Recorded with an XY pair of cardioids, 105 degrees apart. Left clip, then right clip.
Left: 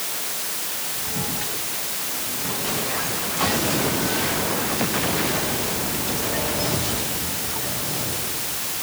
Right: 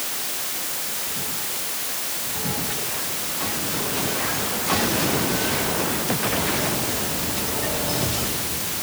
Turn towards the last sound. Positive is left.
No sound to turn to.